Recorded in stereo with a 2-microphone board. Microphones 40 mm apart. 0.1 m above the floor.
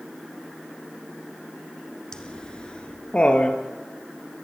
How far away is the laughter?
About 1.7 m.